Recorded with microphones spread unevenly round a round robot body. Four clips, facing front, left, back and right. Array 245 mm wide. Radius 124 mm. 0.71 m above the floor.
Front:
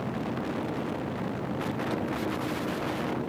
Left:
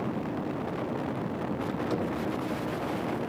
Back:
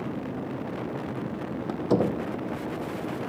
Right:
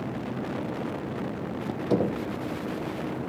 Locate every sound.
1.7 s a door slam: 145° right